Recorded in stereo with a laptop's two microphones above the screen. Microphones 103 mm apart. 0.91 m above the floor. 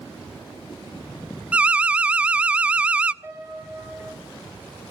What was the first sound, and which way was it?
An alarm, 10° right (ahead or behind).